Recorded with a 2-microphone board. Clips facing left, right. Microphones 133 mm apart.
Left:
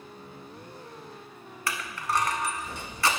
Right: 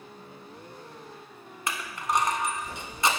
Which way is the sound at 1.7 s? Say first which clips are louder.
Right 1 dB; 20° right (ahead or behind).